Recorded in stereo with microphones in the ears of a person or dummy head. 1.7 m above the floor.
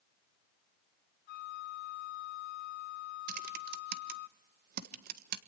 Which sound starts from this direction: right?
Typing on a keyboard, at 3.3 s.